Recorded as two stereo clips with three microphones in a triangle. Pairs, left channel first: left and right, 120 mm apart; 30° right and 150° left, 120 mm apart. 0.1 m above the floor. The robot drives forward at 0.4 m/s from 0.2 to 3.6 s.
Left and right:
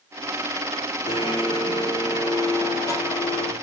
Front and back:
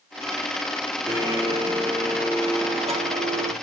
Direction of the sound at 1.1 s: 105° left.